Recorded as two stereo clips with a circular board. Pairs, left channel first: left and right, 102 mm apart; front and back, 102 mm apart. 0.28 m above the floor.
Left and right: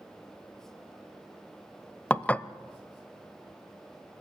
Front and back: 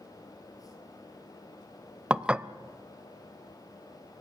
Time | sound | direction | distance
2.1 | dishes clattering | 125° left | 0.5 m